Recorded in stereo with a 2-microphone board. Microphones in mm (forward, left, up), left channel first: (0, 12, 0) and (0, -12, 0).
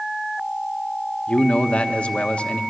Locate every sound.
1.3 s a man speaking: 55° left (ahead or behind), 1.1 m